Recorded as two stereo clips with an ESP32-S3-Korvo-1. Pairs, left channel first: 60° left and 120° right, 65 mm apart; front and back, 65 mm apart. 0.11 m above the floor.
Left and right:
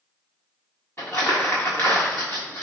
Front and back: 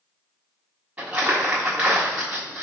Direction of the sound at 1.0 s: 110° left.